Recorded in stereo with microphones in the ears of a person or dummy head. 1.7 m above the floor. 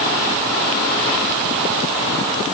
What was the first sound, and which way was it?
Only background noise.